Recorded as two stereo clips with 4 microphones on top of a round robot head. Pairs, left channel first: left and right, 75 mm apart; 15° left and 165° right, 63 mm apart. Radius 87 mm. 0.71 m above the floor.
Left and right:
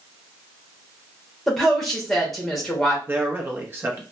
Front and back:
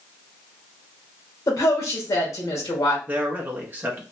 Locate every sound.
1.5 s a woman speaking: straight ahead, 1.4 m
3.1 s a man speaking: 130° right, 0.9 m